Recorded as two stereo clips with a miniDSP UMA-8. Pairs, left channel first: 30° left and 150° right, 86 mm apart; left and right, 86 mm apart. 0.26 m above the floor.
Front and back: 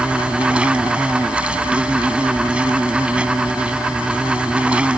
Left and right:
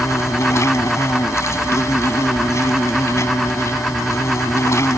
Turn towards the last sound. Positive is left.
turn(degrees=135)